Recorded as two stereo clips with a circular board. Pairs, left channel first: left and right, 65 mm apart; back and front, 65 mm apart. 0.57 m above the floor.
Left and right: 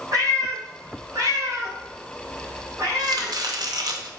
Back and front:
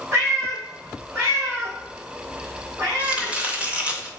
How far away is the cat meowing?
About 2 m.